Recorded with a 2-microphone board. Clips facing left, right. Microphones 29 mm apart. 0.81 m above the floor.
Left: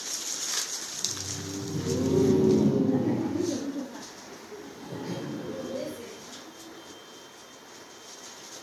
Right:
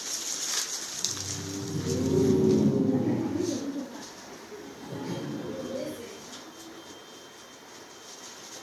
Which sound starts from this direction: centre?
Laughter, at 0.9 s.